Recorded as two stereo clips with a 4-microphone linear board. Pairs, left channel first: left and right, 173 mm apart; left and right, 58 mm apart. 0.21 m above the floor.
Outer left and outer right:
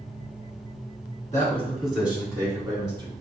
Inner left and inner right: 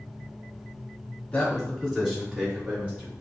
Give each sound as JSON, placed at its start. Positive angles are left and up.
{"t": 1.3, "sound": "a man speaking", "side_deg": 20, "distance_m": 1.3}